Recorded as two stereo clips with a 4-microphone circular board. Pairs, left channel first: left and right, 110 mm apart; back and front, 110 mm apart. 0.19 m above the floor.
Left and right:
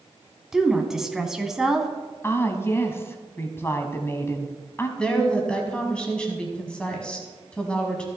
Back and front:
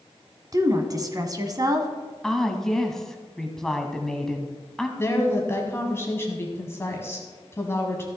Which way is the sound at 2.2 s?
100° left.